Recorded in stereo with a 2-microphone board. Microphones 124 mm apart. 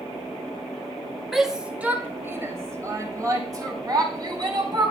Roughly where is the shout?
Centre.